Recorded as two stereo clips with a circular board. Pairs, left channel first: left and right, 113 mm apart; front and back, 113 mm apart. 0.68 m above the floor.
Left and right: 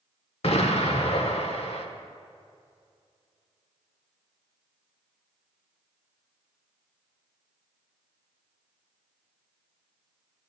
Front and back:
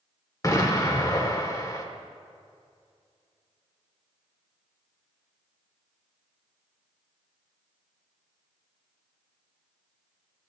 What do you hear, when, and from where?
0.4 s an explosion: 60° left, 0.9 m